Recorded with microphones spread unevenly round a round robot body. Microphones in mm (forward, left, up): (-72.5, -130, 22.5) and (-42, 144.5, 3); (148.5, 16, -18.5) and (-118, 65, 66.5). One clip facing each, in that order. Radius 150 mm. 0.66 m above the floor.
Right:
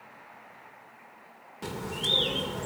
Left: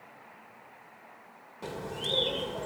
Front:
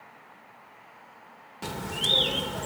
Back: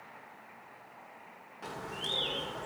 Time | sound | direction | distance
1.6 | a bird | 25° right | 1.7 m